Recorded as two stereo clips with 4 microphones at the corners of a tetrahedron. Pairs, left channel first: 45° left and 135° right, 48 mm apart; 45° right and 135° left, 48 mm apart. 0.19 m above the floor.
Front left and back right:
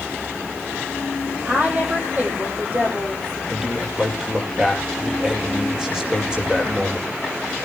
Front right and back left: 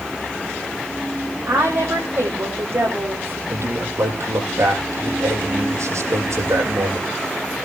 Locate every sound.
1.5 s a woman speaking: 170° left, 8 m
3.5 s a man speaking: 150° left, 6.5 m